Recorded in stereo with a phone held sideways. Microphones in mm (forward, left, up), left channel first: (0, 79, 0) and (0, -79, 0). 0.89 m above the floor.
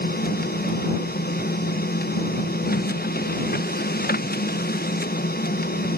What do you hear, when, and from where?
0.0 s a machine running: 75° left (ahead or behind)